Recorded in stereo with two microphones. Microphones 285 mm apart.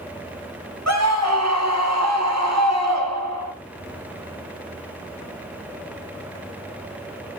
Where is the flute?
No flute in this recording.